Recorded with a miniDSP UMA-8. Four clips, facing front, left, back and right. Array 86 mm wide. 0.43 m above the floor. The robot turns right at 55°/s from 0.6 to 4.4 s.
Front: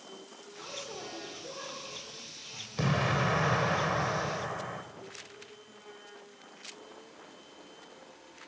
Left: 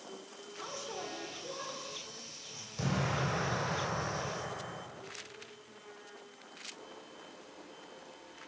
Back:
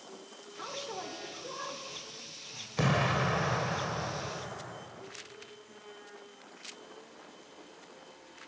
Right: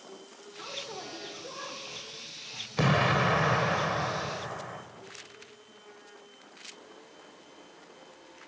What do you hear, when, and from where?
0.6 s a man speaking: 165° right, 1.2 m; by 2.7 s 55° right, 1.2 m
2.8 s an explosion: 110° right, 0.7 m; by 4.8 s 20° right, 0.7 m